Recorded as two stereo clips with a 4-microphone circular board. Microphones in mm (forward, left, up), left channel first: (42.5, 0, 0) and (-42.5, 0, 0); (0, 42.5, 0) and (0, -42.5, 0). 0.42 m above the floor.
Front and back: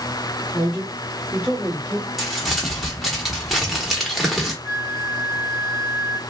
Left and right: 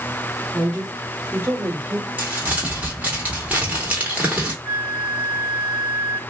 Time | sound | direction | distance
0.5 | a man speaking | 170° right | 1.3 m
2.2 | crumpling | 85° right | 0.9 m
4.6 | a flute | 170° right | 1.7 m